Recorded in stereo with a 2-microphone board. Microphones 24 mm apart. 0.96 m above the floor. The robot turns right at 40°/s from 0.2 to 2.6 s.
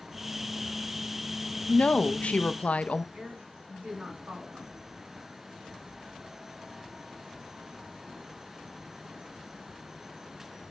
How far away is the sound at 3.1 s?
About 3.5 m.